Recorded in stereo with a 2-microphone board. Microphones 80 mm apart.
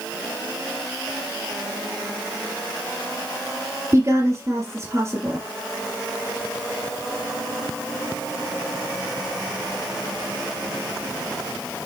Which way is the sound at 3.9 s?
35° right (ahead or behind).